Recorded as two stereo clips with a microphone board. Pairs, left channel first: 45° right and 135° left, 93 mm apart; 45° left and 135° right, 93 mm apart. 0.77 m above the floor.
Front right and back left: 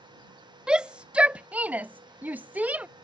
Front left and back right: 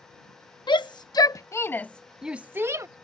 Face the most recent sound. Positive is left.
turn(degrees=-160)